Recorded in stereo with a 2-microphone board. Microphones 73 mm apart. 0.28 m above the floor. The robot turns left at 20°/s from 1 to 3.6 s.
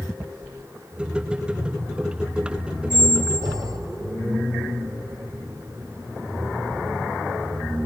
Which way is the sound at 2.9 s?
55° right (ahead or behind).